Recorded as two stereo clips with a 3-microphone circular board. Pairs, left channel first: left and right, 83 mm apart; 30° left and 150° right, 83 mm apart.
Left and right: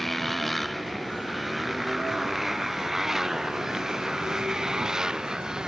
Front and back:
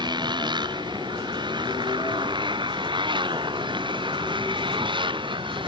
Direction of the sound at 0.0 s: Straight behind.